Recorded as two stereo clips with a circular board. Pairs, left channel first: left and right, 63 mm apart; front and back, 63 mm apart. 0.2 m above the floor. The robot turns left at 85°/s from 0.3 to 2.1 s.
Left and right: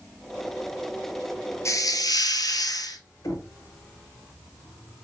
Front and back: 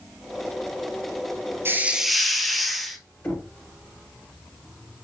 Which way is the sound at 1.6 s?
130° left.